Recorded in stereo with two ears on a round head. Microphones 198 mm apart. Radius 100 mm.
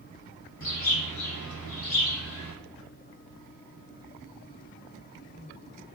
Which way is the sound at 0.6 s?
60° left (ahead or behind).